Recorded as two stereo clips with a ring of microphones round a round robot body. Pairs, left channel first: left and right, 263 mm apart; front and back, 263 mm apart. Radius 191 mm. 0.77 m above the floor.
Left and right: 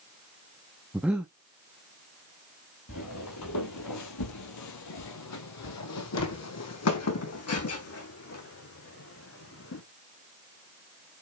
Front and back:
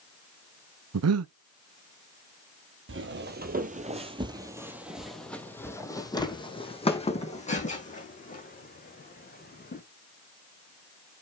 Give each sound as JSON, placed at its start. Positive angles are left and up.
{"t": 0.9, "sound": "breathing", "azimuth_deg": -175, "distance_m": 0.7}
{"t": 2.9, "sound": "footsteps", "azimuth_deg": 140, "distance_m": 1.7}